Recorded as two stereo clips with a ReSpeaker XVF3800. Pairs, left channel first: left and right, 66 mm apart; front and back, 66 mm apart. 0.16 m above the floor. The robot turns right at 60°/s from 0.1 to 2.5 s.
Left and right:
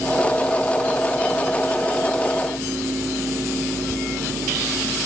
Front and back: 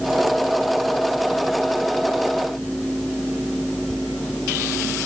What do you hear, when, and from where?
Only background noise.